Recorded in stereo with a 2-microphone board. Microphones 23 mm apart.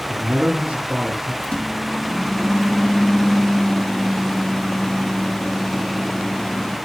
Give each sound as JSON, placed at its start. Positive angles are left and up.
{"t": 0.1, "sound": "a man speaking", "side_deg": -60, "distance_m": 3.0}
{"t": 1.4, "sound": "a microwave", "side_deg": 50, "distance_m": 3.5}